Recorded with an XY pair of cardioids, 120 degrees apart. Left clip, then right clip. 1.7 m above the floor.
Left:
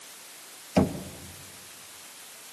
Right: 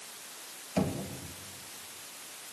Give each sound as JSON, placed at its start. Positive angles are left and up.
{"t": 0.8, "sound": "knocking", "azimuth_deg": 45, "distance_m": 1.9}